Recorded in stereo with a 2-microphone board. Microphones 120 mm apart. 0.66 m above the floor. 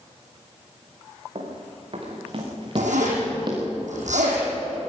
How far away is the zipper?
About 6.5 m.